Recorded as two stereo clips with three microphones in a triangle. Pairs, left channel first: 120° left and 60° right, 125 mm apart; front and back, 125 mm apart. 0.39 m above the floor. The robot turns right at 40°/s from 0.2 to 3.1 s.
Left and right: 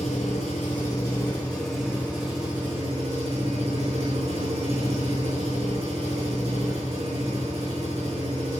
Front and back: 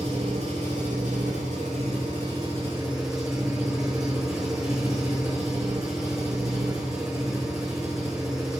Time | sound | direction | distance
0.0 | an engine running | 150° left | 6.5 m